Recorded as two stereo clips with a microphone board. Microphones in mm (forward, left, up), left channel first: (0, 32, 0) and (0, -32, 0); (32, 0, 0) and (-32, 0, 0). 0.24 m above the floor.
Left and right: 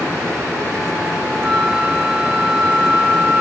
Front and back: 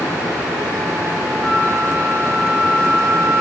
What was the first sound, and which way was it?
A flute, 55° right.